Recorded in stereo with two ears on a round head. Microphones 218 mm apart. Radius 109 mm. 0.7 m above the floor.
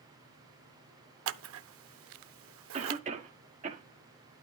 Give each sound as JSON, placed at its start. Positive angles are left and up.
{"t": 1.3, "sound": "scissors", "side_deg": -60, "distance_m": 0.6}
{"t": 2.7, "sound": "a cough", "side_deg": -30, "distance_m": 1.5}